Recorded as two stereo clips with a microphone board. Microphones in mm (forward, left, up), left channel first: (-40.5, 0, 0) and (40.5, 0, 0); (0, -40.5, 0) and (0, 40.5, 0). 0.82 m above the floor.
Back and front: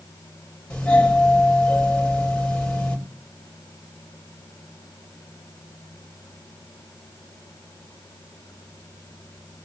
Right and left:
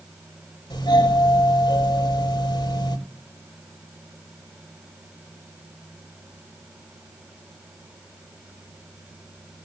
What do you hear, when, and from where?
0.7 s a doorbell: 105° right, 6 m